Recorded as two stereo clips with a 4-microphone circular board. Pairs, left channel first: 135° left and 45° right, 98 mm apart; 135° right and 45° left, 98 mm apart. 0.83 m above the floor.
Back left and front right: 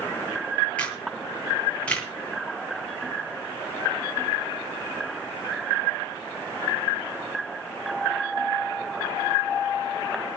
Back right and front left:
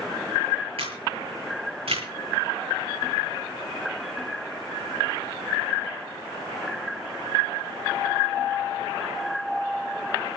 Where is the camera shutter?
55° left, 7.5 m.